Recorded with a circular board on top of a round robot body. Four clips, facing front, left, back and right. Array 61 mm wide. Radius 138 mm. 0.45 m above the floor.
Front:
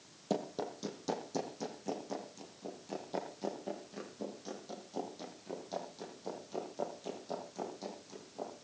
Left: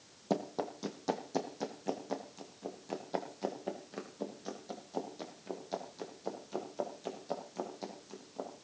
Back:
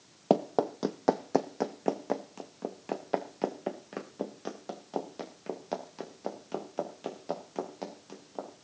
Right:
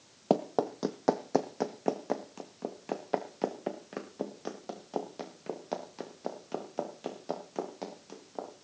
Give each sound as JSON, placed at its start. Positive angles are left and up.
{"t": 0.3, "sound": "running footsteps", "azimuth_deg": -145, "distance_m": 0.8}